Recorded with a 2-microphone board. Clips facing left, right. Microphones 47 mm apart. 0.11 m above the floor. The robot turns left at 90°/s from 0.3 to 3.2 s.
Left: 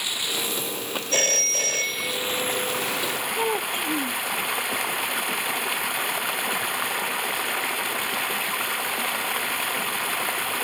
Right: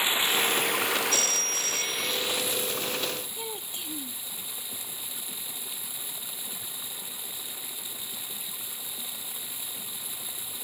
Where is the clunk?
No clunk in this recording.